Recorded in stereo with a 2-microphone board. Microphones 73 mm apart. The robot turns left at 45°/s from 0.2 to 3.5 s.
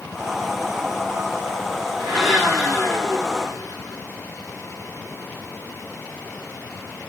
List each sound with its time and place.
2.0 s a blender: 175° right, 3.5 m; by 4.0 s 120° left, 3.5 m